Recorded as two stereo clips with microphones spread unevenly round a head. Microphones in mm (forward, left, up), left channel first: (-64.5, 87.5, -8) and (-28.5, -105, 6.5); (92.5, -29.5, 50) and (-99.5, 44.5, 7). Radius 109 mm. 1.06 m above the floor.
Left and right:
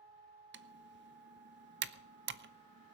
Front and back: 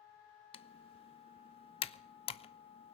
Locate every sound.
0.5 s typing on a keyboard: 90° right, 0.6 m